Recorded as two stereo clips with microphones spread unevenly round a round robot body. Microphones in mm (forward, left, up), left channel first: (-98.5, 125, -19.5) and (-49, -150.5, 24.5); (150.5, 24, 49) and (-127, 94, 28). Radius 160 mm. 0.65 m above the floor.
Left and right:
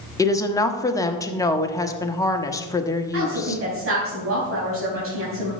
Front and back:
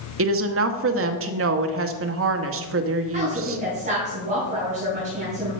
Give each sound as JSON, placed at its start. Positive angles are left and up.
{"t": 0.2, "sound": "a woman speaking", "azimuth_deg": 165, "distance_m": 1.2}
{"t": 3.1, "sound": "a woman speaking", "azimuth_deg": -125, "distance_m": 3.5}